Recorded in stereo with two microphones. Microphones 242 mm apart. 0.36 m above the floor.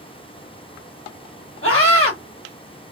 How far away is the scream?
About 2.5 m.